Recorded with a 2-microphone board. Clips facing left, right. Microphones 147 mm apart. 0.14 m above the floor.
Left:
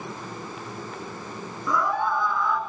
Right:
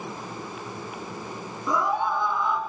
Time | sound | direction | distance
1.7 | a scream | 20° right (ahead or behind) | 2 m